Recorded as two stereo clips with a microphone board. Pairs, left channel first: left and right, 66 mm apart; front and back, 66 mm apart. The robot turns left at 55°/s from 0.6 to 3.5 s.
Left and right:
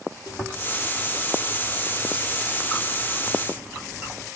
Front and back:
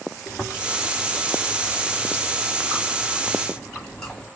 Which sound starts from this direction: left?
Chewing, at 0.3 s.